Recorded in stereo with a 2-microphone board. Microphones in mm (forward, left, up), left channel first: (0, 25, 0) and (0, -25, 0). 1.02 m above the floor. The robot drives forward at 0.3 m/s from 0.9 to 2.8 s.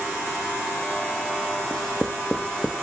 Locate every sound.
1.7 s writing: 5° left (ahead or behind), 0.8 m; by 2.7 s 10° left (ahead or behind), 0.5 m